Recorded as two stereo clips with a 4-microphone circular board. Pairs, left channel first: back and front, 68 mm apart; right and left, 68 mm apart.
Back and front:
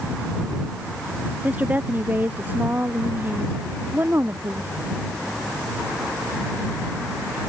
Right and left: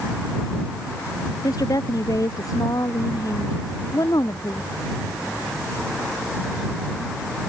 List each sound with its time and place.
1.4 s a woman speaking: 65° right; by 4.7 s 55° right